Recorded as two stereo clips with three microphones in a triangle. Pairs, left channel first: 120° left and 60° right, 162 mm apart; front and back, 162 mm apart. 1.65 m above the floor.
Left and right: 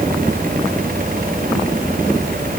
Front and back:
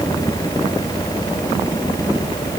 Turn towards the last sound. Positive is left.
No sound to turn to.